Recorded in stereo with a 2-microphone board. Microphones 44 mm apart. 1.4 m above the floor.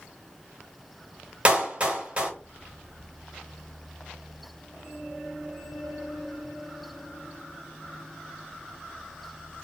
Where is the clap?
25° right (ahead or behind), 1.3 m.